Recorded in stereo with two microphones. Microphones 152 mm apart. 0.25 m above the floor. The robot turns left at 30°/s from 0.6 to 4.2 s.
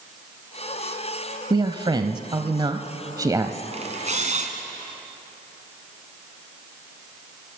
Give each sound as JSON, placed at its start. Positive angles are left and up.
{"t": 1.5, "sound": "a man speaking", "azimuth_deg": -75, "distance_m": 1.0}
{"t": 3.7, "sound": "a camera shutter", "side_deg": -45, "distance_m": 2.5}